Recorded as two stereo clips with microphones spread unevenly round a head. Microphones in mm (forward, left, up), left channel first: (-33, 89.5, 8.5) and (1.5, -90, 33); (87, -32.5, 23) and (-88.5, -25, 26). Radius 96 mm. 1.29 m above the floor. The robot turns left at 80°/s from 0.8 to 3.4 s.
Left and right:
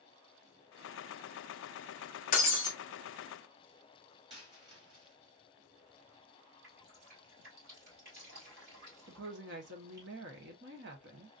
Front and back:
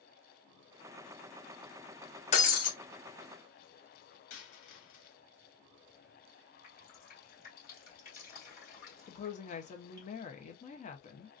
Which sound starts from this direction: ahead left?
Breaking glass, at 2.3 s.